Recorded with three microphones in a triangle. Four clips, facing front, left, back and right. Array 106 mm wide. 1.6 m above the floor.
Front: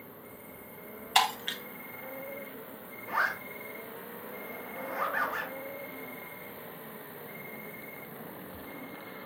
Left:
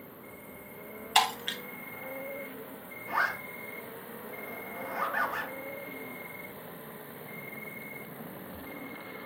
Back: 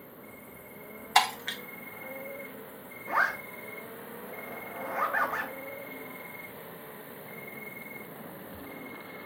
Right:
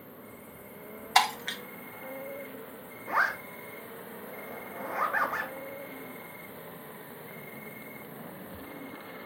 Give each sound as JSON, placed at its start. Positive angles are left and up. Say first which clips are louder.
{"t": 0.0, "sound": "an insect", "louder": "even, even", "azimuth_deg": -65, "distance_m": 1.1}
{"t": 1.1, "sound": "breaking glass", "louder": "right 2 dB, back 2 dB", "azimuth_deg": -125, "distance_m": 0.7}
{"t": 3.1, "sound": "a zipper", "louder": "right 2 dB, back 3 dB", "azimuth_deg": -125, "distance_m": 1.1}